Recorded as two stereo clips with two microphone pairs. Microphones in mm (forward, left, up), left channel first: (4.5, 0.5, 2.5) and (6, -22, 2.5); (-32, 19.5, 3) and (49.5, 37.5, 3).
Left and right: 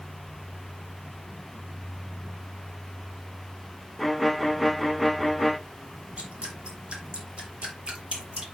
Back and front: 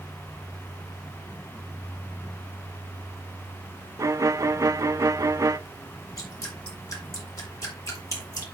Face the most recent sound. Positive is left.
turn(degrees=-120)